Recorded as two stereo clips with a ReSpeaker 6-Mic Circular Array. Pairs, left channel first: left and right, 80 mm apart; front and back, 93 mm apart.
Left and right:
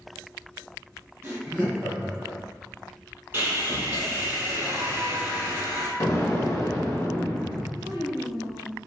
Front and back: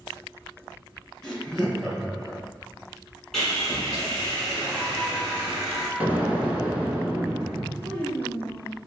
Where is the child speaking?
85° right, 1.3 m.